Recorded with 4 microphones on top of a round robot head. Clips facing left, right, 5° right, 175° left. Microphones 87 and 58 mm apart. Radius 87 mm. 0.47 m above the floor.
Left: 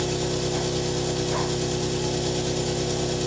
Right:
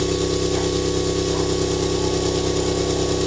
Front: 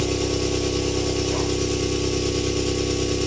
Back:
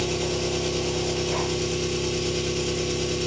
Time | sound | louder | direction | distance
0.0 | an engine running | right 5 dB, front 3 dB | 90° right | 1.3 m